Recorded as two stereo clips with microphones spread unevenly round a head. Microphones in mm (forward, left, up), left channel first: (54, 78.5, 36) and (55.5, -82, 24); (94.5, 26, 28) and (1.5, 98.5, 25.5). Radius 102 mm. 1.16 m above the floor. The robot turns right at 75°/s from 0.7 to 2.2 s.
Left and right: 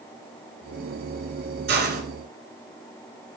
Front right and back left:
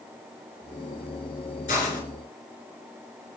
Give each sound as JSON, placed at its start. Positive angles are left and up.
{"t": 1.7, "sound": "a hiss", "azimuth_deg": -90, "distance_m": 2.5}